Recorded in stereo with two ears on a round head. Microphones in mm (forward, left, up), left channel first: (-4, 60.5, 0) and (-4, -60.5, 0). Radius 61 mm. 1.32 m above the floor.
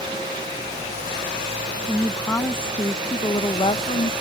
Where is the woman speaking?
5° left (ahead or behind); by 4.1 s 40° left (ahead or behind).